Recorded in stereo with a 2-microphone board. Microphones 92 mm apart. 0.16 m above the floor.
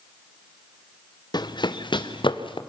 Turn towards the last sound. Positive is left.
turn(degrees=65)  # may be behind; listen again after turning